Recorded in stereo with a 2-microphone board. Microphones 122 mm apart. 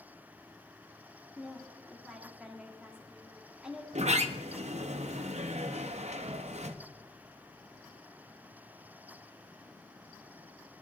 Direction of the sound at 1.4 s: 10° right (ahead or behind).